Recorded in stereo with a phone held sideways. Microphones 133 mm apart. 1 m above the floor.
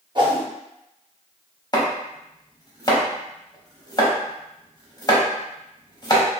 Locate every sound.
0.1 s a whoosh: 35° right (ahead or behind), 0.7 m
1.7 s chopping: 30° left (ahead or behind), 0.9 m